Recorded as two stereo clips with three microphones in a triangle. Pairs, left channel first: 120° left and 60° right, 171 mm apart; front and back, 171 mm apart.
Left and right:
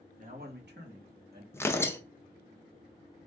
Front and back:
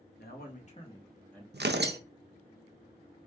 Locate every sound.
0.2 s a man speaking: 20° right, 1.5 m; by 1.4 s 85° right, 1.9 m
1.5 s tearing paper: 165° right, 0.6 m